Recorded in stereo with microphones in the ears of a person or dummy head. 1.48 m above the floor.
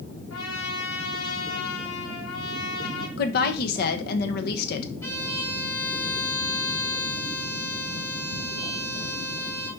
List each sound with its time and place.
0.3 s a trumpet: 90° left, 4 m
3.2 s a woman speaking: 65° left (ahead or behind), 1.4 m
5.0 s a violin: 20° left (ahead or behind), 4.5 m